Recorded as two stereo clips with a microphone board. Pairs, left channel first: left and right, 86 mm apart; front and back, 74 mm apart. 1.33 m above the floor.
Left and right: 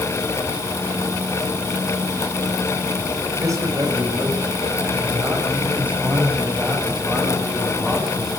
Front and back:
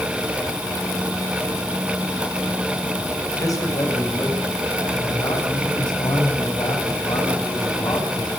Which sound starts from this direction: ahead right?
A man speaking, at 3.4 s.